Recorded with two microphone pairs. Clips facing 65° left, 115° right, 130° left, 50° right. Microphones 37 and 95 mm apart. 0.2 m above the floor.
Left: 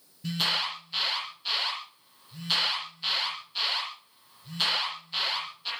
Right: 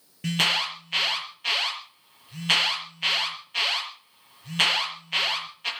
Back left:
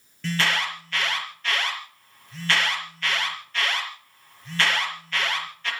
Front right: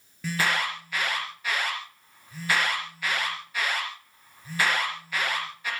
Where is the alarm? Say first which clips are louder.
Right 5 dB, back left 1 dB; 135° right, 5.5 m.